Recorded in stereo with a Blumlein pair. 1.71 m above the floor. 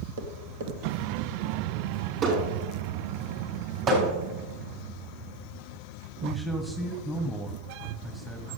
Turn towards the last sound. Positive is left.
turn(degrees=0)